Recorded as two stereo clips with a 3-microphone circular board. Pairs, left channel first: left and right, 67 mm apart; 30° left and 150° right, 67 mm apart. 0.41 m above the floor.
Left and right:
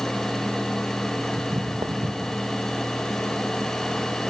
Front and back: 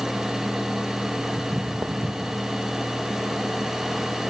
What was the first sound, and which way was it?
Footsteps, 80° right.